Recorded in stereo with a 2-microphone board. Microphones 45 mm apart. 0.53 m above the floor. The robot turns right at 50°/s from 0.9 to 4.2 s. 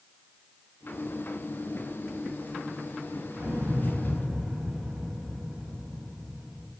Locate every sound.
3.3 s an explosion: 50° right, 1.9 m; by 6.7 s 10° right, 1.9 m